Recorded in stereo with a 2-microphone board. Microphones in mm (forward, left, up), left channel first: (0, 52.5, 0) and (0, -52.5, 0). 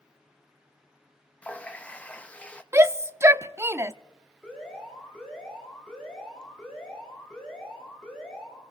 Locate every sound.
1.4 s a running tap: 15° left (ahead or behind), 0.8 m
2.7 s a shout: 25° right (ahead or behind), 0.5 m
4.4 s an alarm: 10° left (ahead or behind), 7.5 m